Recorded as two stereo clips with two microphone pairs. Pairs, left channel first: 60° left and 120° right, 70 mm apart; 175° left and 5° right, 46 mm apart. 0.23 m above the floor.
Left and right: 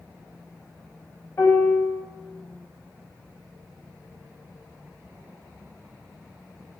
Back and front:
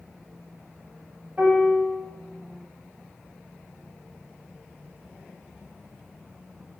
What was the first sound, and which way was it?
A piano, 40° left.